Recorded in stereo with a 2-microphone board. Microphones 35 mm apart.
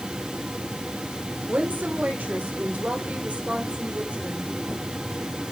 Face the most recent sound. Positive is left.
turn(degrees=-35)  # may be behind; listen again after turning